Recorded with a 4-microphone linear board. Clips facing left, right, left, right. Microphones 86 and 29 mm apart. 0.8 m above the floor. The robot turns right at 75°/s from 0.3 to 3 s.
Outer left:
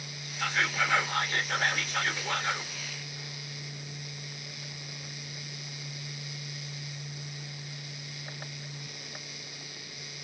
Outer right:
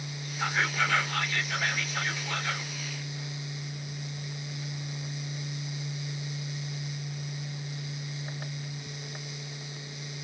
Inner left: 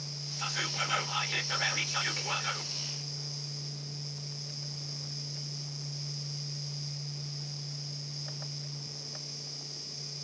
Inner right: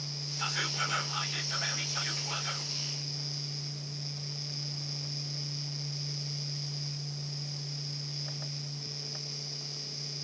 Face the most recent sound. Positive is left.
turn(degrees=175)